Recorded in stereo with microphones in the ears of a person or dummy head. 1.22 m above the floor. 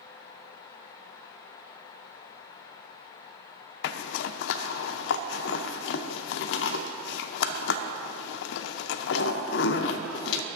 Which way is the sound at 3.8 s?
70° left (ahead or behind).